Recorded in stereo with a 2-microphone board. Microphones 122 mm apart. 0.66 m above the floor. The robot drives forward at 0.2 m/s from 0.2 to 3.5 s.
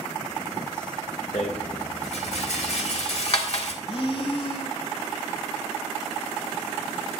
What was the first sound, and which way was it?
A rattle, 60° left (ahead or behind).